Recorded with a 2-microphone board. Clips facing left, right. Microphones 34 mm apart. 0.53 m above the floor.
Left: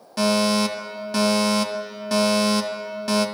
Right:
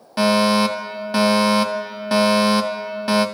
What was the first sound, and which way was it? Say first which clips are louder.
A fire alarm: right 4 dB; 25° right (ahead or behind).